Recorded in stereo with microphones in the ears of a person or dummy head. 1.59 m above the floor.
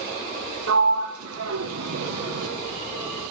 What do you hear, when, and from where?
0.7 s a sliding door: 75° right (ahead or behind), 0.6 m